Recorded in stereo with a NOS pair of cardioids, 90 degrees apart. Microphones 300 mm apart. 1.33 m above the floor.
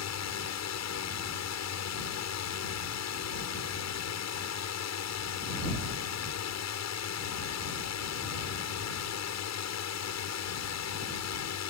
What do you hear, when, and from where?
0.0 s a drone: 60° left